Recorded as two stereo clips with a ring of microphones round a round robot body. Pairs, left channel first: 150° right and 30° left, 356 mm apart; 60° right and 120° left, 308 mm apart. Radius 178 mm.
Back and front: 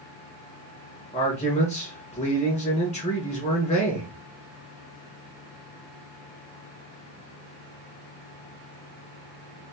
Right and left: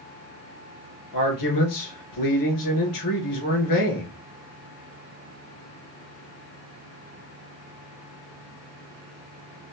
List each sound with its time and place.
1.1 s a man speaking: 80° right, 2.5 m